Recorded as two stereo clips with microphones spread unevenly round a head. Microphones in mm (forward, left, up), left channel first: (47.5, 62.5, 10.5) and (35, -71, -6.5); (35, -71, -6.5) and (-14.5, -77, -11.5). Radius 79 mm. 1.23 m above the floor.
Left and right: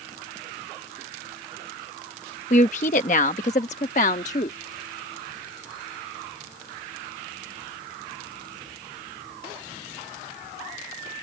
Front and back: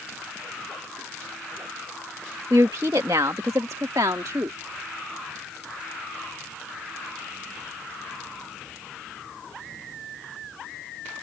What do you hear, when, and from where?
2.5 s a woman speaking: 135° left